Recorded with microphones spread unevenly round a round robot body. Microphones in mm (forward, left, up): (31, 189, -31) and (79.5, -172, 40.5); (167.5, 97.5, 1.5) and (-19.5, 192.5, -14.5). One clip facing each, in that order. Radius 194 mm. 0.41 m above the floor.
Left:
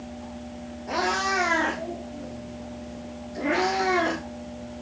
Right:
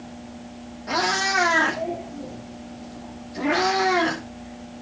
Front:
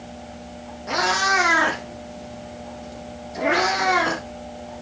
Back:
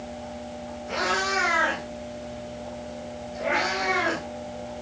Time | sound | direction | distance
0.9 | a cat meowing | 30° right | 7.5 m